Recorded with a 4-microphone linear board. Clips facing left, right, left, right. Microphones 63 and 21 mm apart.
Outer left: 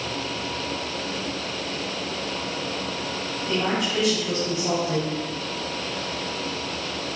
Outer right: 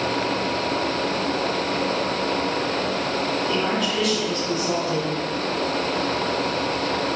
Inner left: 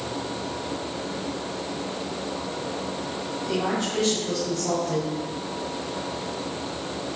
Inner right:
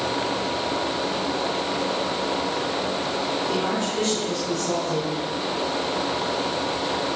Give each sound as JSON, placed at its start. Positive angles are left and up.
{"t": 3.5, "sound": "a woman speaking", "side_deg": 15, "distance_m": 3.0}